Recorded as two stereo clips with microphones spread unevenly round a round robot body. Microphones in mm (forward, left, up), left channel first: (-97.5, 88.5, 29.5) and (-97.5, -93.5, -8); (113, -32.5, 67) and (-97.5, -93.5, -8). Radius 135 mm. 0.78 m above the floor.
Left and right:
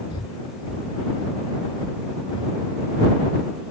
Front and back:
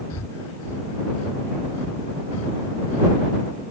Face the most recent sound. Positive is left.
turn(degrees=15)